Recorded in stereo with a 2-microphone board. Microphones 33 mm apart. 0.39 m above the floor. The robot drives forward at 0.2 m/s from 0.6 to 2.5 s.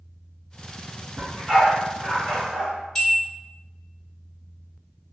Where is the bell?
20° left (ahead or behind), 1.7 m.